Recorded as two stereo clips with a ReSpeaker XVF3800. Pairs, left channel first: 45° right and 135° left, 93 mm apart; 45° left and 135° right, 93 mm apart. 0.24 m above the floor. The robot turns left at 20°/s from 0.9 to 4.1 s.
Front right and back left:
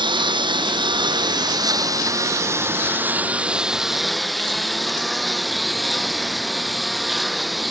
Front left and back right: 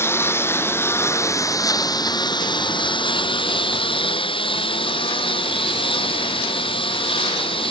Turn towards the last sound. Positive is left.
turn(degrees=45)